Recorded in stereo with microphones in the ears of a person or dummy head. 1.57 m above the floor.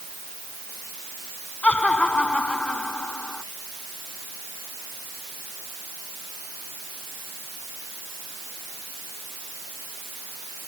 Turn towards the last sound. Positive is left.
turn(degrees=10)  # may be behind; listen again after turning